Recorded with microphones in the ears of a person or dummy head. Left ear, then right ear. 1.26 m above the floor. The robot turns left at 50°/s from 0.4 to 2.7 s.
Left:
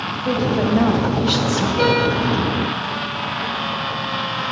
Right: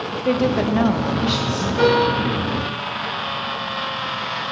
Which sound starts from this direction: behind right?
A woman speaking, at 0.1 s.